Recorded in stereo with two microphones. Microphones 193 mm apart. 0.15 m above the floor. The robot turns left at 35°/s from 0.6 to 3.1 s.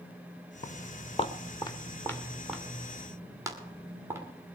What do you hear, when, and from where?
0.6 s footsteps: 40° left (ahead or behind), 1.0 m; by 4.2 s 10° right (ahead or behind), 3 m